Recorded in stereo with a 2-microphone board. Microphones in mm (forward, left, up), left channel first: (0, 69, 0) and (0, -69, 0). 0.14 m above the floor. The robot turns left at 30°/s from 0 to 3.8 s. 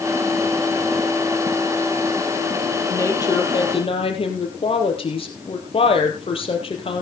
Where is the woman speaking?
20° left (ahead or behind), 3 m; by 7.0 s 45° left (ahead or behind), 3 m.